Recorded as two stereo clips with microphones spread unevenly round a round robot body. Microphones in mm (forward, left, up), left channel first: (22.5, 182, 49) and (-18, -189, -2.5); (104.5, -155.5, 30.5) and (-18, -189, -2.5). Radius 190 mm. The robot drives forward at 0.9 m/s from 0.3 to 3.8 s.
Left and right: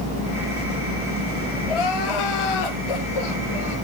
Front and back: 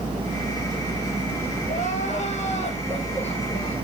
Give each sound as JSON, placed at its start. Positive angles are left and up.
{"t": 1.7, "sound": "crying", "azimuth_deg": 80, "distance_m": 4.0}